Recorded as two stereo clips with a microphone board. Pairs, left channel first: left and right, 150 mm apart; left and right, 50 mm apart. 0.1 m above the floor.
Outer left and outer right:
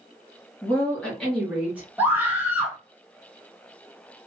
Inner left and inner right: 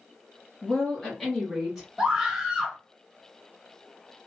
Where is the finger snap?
I don't hear a finger snap.